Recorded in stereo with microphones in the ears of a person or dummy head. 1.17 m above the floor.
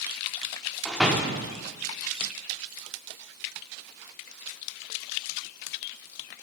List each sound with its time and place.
0.8 s a door slam: 5° left (ahead or behind), 1.7 m